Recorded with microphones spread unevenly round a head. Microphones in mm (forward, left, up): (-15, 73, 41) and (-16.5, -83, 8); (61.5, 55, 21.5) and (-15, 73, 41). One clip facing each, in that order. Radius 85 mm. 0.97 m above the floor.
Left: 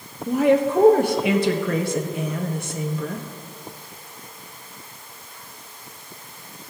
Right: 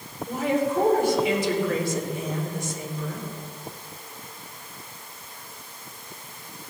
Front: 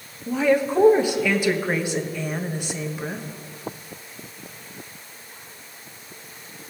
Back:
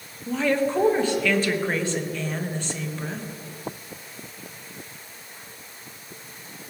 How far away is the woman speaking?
About 1.2 m.